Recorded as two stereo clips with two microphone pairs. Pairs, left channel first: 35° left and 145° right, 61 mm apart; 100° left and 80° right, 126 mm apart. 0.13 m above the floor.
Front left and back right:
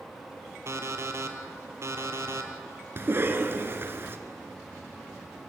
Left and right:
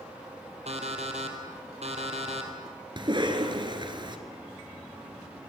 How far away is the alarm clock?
About 2.5 m.